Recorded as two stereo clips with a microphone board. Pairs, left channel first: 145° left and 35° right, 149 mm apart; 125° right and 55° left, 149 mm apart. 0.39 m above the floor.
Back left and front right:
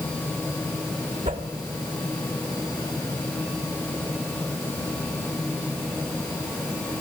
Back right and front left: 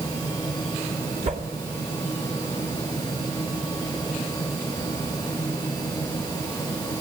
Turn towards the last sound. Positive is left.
turn(degrees=20)